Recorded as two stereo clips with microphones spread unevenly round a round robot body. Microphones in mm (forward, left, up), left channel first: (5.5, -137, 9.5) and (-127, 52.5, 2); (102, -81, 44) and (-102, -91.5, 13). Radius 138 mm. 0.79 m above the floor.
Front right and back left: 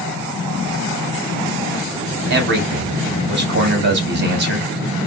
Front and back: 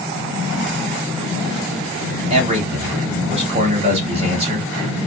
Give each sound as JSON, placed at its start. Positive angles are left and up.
{"t": 2.3, "sound": "a man speaking", "azimuth_deg": 140, "distance_m": 0.9}